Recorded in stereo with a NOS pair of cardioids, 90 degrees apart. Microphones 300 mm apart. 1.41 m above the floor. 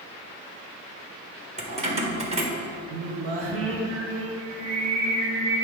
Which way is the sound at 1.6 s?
20° right.